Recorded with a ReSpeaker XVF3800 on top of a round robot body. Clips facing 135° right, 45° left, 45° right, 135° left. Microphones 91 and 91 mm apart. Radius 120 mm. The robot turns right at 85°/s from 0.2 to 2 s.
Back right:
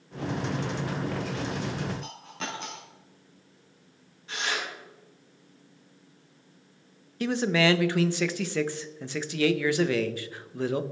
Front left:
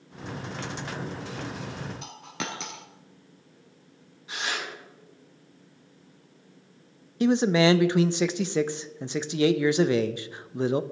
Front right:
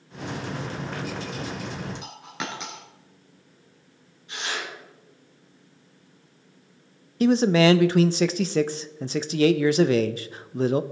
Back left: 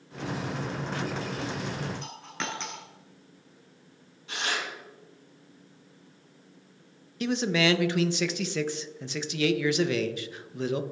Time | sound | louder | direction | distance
2.0 | a dropped coin | front left 1 dB, front right 1 dB | 35° left | 1.3 m
4.3 | tearing paper | back right 1 dB, even | 120° left | 5.5 m
7.2 | a man speaking | front left 4 dB, front right 8 dB | 15° right | 0.6 m